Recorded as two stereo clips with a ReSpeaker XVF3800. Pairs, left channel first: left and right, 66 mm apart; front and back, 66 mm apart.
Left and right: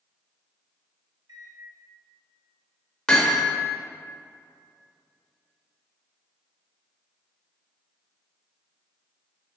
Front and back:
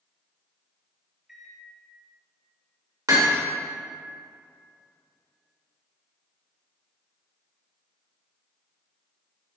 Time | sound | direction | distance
1.3 | a microwave | 95° right | 1.1 m
3.1 | hammering | 165° left | 1.3 m